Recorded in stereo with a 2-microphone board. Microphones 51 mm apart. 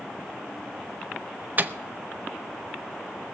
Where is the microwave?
35° right (ahead or behind), 0.6 m.